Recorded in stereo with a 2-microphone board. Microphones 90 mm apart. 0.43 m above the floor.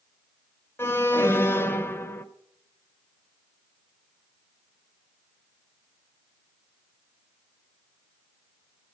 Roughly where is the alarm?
Left.